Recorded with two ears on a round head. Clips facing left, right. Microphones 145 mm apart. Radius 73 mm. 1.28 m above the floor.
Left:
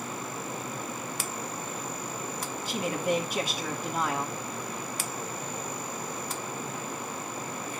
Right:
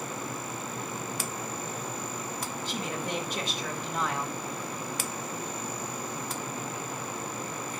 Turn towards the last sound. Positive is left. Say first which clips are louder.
# left 7 dB
turn(degrees=10)  # may be behind; listen again after turning